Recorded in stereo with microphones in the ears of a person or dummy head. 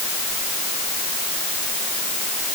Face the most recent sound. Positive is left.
No sound to turn to.